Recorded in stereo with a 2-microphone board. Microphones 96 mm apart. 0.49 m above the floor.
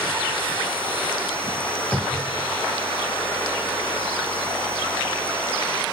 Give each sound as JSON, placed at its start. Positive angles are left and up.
{"t": 1.9, "sound": "a cupboard door", "side_deg": 10, "distance_m": 2.0}